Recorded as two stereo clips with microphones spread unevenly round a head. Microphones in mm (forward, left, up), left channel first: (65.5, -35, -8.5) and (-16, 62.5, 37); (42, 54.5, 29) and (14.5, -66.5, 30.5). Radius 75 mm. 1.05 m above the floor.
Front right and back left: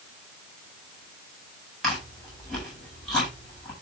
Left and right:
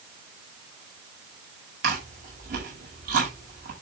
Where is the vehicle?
I don't hear a vehicle.